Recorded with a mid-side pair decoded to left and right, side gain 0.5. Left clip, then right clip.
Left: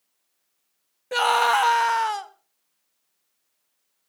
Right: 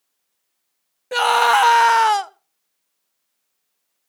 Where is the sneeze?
I don't hear a sneeze.